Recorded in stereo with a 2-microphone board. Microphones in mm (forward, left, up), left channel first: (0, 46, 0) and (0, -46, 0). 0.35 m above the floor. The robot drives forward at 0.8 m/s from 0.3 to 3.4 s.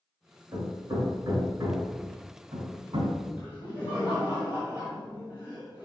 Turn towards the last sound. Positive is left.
turn(degrees=-20)  # may be behind; listen again after turning